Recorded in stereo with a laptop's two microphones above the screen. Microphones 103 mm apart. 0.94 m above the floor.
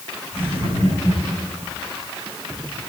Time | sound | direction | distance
0.3 | laughter | 85° right | 7 m